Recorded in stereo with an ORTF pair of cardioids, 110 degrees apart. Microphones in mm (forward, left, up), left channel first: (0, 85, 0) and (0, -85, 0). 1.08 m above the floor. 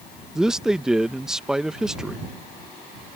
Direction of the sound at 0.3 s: 5° right.